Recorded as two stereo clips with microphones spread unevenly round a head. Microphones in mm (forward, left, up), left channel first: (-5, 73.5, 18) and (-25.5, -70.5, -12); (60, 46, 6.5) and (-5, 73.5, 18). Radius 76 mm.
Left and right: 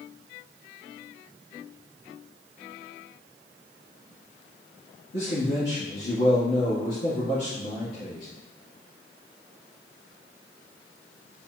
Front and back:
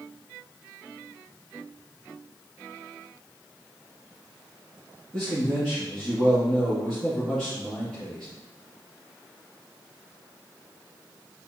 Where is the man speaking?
60° left, 2 m.